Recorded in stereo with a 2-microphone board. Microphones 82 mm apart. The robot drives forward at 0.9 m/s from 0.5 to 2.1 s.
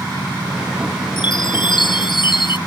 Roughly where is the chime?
Left.